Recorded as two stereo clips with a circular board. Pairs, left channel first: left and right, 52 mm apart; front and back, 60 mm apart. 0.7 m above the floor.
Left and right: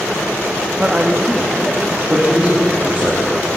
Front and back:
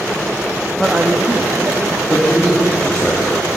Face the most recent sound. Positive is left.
turn(degrees=-55)